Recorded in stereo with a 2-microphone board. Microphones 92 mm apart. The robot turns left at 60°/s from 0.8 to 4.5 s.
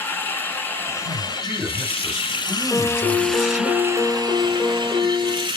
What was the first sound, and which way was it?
Running water, 155° left.